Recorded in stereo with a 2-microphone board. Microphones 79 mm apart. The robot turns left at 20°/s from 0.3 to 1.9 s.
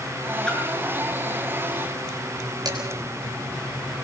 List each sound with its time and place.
0.5 s a splash: 10° left (ahead or behind), 7 m; by 0.6 s 15° left (ahead or behind), 7 m
2.6 s dishes clattering: 55° right (ahead or behind), 5.5 m